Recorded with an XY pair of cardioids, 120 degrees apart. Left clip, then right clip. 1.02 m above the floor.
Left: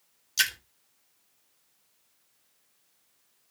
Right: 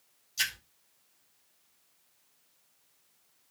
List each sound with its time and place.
0.4 s a splash: 60° left, 1.8 m